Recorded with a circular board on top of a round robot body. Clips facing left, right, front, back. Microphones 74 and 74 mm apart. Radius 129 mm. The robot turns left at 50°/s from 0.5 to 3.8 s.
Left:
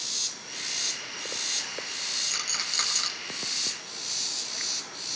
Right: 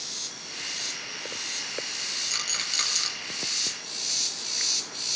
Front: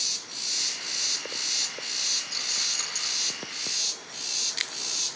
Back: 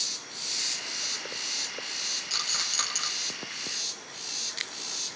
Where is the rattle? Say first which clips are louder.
Even, back 2 dB; straight behind, 5 m; by 3.1 s 140° left, 5 m.